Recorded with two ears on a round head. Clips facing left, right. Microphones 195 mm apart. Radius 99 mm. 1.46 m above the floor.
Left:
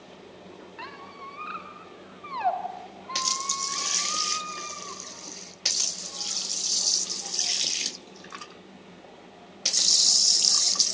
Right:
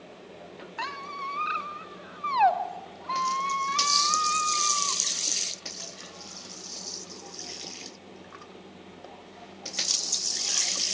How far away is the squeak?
About 1.6 m.